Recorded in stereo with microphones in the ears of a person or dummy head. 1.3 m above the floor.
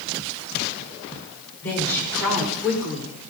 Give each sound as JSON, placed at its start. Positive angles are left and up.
{"t": 1.6, "sound": "a woman speaking", "side_deg": 15, "distance_m": 5.0}